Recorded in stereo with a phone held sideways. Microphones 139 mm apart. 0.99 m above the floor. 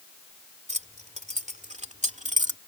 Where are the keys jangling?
60° right (ahead or behind).